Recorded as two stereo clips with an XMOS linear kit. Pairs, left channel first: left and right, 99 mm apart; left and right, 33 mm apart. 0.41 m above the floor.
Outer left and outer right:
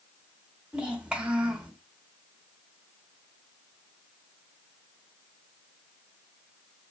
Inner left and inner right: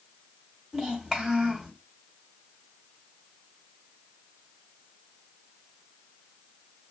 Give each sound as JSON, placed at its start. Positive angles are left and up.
{"t": 0.7, "sound": "a child speaking", "side_deg": -10, "distance_m": 1.1}